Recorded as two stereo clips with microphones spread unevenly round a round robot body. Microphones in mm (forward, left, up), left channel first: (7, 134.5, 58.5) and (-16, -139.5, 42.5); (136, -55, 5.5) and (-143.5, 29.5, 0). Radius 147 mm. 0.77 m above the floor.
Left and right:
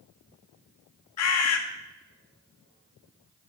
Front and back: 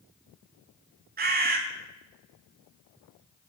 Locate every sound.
1.2 s a bird: 105° left, 1.4 m